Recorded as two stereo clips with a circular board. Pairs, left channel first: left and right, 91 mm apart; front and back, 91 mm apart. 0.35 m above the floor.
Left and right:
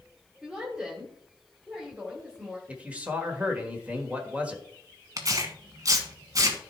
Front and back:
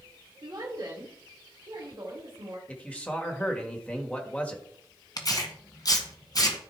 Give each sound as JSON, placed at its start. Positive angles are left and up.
{"t": 0.4, "sound": "a woman speaking", "azimuth_deg": -165, "distance_m": 1.8}
{"t": 2.7, "sound": "a man speaking", "azimuth_deg": -45, "distance_m": 1.3}
{"t": 5.2, "sound": "tearing paper", "azimuth_deg": -40, "distance_m": 1.3}